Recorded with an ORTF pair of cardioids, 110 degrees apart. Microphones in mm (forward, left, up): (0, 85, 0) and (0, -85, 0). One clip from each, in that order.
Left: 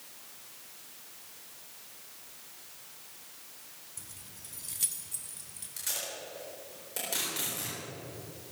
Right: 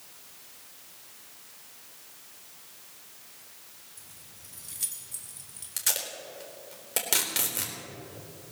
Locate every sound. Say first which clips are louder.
4.0 s keys jangling: left 1 dB; 40° left, 1.3 m; by 5.7 s 5° right, 3 m
5.8 s tape being pulled: right 5 dB; 55° right, 4 m